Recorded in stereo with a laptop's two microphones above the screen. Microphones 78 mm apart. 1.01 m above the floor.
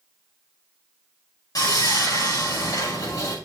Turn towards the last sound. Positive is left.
turn(degrees=55)  # may be behind; listen again after turning